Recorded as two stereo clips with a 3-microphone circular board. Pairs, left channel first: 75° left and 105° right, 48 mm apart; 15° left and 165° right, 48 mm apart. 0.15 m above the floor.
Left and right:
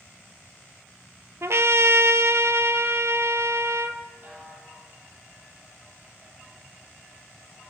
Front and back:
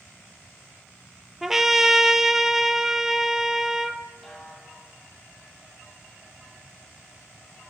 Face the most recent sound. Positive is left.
turn(degrees=-60)